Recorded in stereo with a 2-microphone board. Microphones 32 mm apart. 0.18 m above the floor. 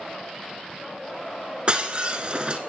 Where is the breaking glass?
30° right (ahead or behind), 1.6 m.